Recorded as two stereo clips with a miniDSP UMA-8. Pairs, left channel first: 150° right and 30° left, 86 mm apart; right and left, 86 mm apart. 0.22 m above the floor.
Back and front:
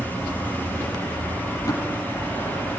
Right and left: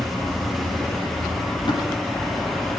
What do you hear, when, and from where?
1.7 s tapping: 105° right, 6.5 m